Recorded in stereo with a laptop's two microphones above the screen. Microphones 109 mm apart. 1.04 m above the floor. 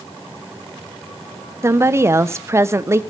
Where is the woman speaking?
25° right (ahead or behind), 0.8 m.